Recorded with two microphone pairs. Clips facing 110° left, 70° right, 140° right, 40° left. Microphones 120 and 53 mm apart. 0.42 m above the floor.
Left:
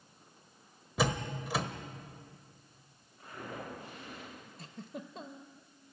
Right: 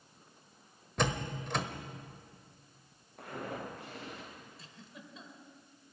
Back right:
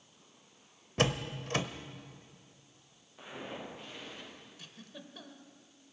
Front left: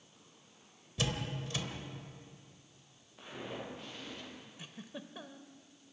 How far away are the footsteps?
About 9 m.